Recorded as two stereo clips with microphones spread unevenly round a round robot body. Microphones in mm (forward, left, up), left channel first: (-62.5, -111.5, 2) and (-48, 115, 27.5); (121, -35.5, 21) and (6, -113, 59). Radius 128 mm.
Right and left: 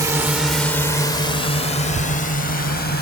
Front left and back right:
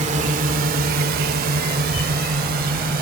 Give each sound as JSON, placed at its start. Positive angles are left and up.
{"t": 0.0, "sound": "a drone", "azimuth_deg": 165}